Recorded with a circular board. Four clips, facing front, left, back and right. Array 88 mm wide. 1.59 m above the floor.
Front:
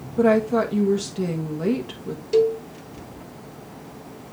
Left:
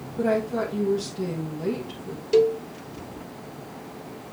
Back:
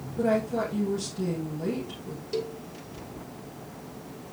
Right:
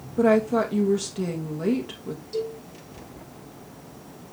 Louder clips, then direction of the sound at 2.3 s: Left 12 dB, front 14 dB; 65° left.